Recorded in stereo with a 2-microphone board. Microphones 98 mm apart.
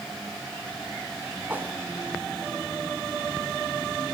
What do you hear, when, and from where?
1.5 s a whoosh: 20° right (ahead or behind), 1.5 m